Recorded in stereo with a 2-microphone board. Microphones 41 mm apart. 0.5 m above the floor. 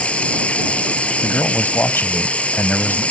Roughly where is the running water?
Left.